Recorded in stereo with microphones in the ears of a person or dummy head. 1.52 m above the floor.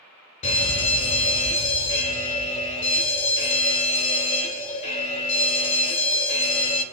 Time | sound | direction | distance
0.4 | a fire alarm | 45° left (ahead or behind) | 2.5 m